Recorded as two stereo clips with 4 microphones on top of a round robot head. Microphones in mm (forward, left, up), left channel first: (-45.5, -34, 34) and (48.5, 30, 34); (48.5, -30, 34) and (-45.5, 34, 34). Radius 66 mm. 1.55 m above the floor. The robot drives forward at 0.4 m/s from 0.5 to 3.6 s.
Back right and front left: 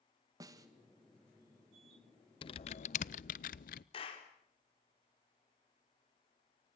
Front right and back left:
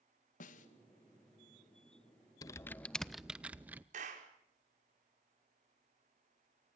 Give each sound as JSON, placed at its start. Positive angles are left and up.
{"t": 0.4, "sound": "a snare drum", "azimuth_deg": -25, "distance_m": 2.5}
{"t": 2.4, "sound": "typing on a keyboard", "azimuth_deg": -95, "distance_m": 0.5}
{"t": 3.9, "sound": "a clap", "azimuth_deg": 170, "distance_m": 4.5}